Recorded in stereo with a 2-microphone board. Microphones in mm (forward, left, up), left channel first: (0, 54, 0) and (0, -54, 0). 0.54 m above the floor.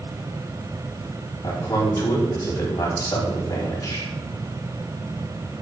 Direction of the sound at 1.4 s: 35° left (ahead or behind).